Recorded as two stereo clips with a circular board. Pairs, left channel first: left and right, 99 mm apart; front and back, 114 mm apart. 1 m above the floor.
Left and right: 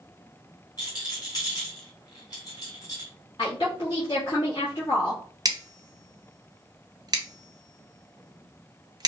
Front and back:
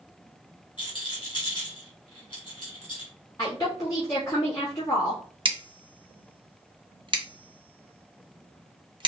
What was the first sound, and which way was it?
A rattle, 45° left.